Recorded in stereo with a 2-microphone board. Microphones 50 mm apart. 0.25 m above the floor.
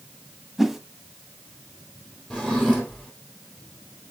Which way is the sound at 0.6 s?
10° right (ahead or behind).